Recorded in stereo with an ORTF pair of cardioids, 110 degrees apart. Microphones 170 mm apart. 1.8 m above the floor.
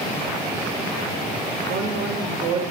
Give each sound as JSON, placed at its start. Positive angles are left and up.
{"t": 1.7, "sound": "a woman speaking", "azimuth_deg": -60, "distance_m": 6.5}